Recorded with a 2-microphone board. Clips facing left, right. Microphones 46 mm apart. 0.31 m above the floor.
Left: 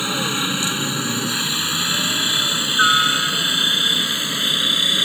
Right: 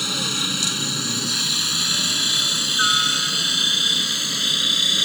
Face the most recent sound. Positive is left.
turn(degrees=20)  # may be behind; listen again after turning